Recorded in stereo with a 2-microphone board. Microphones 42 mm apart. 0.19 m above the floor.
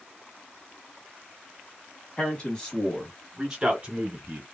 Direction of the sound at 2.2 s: 25° left (ahead or behind).